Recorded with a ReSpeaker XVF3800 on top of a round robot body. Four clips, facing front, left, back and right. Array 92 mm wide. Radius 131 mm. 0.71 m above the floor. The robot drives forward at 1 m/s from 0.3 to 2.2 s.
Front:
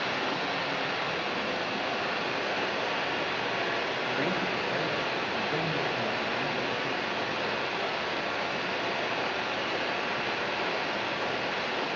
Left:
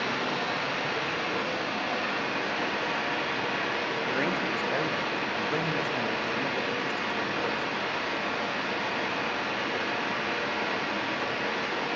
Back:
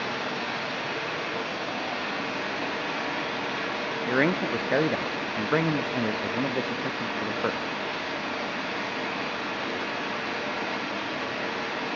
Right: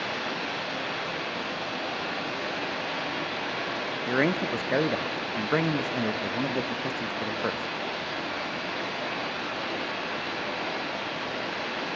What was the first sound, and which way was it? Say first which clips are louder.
Running water: left 2 dB, even; 95° left.